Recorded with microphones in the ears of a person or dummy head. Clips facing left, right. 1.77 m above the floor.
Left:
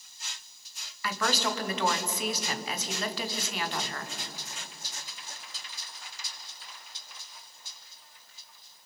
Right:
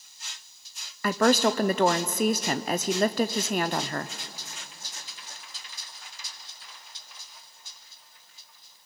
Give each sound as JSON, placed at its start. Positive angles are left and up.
{"t": 1.0, "sound": "a woman speaking", "side_deg": -40, "distance_m": 0.8}